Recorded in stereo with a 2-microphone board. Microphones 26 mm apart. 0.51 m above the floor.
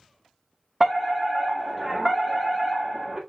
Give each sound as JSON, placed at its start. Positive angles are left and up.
{"t": 0.8, "sound": "a fire alarm", "side_deg": -10, "distance_m": 1.7}